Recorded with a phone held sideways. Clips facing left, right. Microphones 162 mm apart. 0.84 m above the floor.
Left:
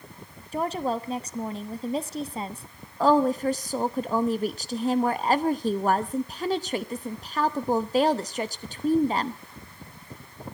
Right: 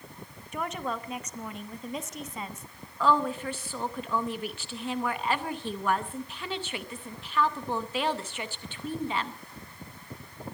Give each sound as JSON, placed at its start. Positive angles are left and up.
{"t": 0.5, "sound": "a woman speaking", "side_deg": 30, "distance_m": 1.1}
{"t": 3.0, "sound": "a woman speaking", "side_deg": 40, "distance_m": 0.8}